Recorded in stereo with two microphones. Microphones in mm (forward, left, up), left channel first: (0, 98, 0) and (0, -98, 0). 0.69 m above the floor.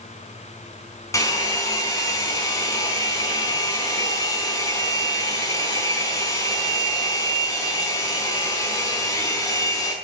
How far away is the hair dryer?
About 4.5 m.